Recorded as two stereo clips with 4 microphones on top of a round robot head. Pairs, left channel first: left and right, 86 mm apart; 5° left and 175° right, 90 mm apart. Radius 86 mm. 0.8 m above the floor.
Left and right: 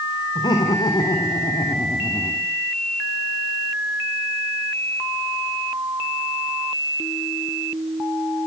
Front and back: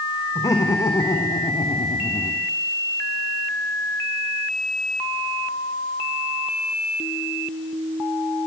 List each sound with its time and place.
0.3 s laughter: 55° left, 4.5 m; by 2.4 s 20° left, 2.5 m